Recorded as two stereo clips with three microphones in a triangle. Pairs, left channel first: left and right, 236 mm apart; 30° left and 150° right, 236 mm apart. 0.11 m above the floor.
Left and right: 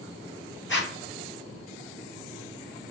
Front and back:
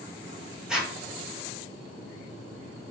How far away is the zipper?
About 1.8 m.